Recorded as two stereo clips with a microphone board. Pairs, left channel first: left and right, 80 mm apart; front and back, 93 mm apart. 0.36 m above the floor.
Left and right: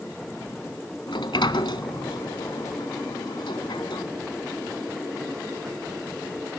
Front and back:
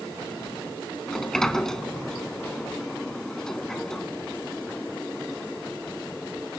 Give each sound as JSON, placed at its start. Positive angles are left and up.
{"t": 1.1, "sound": "a sliding door", "azimuth_deg": 85, "distance_m": 0.8}